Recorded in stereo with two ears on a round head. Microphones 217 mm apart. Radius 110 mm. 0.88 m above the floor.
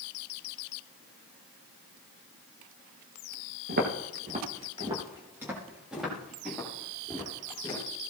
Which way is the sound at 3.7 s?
45° right (ahead or behind).